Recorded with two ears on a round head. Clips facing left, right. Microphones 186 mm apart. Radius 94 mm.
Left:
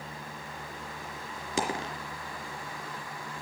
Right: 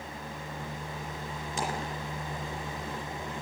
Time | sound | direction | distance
1.6 | a dropped coin | 70° left (ahead or behind) | 3 m